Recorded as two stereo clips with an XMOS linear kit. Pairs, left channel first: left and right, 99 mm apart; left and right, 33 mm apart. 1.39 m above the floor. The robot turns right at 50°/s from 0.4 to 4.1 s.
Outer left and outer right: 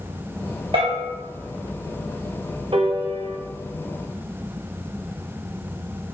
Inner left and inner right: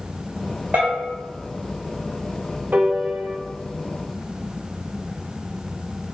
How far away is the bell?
About 2 m.